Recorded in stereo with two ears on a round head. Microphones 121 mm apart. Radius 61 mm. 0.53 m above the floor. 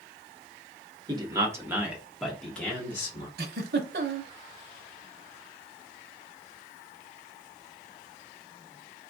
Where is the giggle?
85° right, 0.6 m.